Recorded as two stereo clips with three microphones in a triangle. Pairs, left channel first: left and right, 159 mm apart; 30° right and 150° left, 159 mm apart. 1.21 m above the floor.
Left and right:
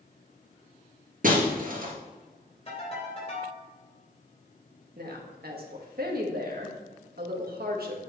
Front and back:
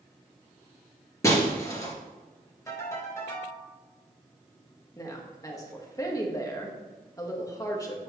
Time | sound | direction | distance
1.2 | breaking glass | 100° right | 2.5 m
2.7 | a ringtone | 40° left | 4 m
5.0 | a woman speaking | 100° right | 1.6 m